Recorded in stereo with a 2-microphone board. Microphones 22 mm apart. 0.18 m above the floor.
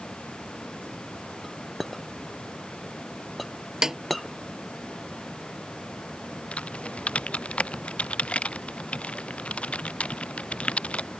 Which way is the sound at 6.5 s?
75° left (ahead or behind).